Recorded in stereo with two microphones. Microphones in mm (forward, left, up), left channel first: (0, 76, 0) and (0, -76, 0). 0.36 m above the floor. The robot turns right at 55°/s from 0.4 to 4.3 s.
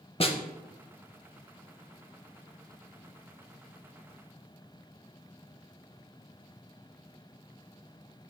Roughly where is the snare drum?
Left.